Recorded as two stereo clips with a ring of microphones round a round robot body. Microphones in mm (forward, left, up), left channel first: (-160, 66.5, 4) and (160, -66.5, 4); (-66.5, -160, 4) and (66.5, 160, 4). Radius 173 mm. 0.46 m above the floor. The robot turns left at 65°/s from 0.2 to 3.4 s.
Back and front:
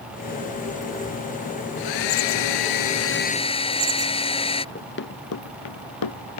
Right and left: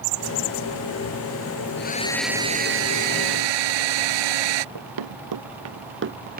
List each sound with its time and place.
1.8 s a hair dryer: 170° right; by 4.7 s 80° left
4.8 s running footsteps: 90° left; by 6.4 s 135° left